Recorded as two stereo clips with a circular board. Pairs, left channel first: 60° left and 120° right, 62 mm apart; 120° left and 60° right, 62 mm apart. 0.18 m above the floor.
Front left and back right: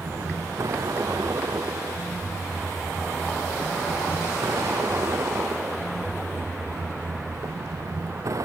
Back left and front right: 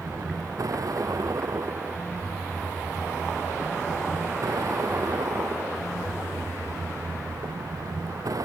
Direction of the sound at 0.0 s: 90° right.